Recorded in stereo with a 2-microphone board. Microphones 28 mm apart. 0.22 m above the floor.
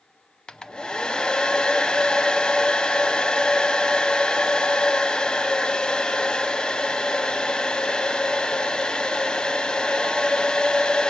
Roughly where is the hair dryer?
Left.